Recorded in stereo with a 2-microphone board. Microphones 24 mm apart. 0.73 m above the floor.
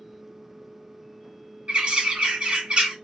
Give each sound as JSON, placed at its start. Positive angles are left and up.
{"t": 1.7, "sound": "a bird", "side_deg": -45, "distance_m": 1.5}